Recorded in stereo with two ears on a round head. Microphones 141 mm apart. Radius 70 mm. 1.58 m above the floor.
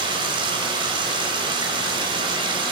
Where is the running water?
35° right (ahead or behind), 5 m.